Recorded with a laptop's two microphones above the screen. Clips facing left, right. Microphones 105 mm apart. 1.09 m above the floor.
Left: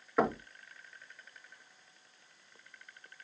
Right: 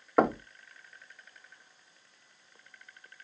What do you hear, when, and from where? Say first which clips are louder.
0.2 s knocking: right 5 dB; 60° right (ahead or behind), 0.5 m